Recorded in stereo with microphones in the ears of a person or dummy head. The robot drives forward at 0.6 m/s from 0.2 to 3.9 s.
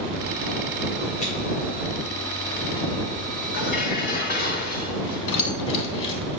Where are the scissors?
35° left (ahead or behind), 3 m.